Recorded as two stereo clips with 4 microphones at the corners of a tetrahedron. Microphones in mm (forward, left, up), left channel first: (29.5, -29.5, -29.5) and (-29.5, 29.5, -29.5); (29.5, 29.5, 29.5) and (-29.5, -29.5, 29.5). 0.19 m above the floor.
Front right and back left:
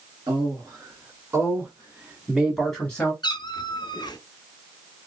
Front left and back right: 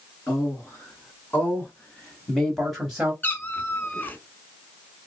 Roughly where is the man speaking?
Left.